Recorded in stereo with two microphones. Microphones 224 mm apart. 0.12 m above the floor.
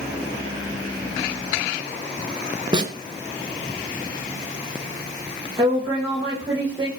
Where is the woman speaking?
15° right (ahead or behind), 9 m.